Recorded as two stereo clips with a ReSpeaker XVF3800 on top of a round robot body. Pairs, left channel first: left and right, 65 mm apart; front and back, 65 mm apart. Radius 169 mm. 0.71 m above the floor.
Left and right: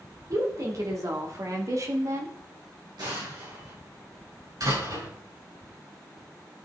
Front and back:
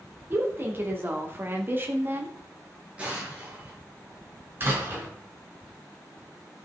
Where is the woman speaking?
125° right, 3 m.